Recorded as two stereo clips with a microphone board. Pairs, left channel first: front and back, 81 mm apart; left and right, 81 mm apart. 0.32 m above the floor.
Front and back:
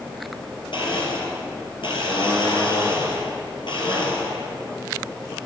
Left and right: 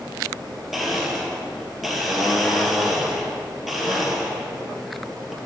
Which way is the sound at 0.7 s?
Straight ahead.